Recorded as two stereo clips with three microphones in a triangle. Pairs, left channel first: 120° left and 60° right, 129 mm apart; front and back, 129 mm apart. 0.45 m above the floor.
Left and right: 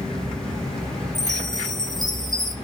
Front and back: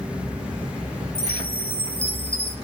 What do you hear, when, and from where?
1.1 s a chime: 30° left, 2.5 m